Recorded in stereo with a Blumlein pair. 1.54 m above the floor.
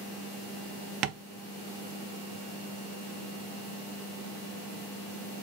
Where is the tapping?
35° right, 0.6 m.